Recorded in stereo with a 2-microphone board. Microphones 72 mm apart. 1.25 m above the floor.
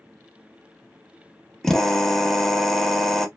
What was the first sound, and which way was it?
A drill, 5° left (ahead or behind).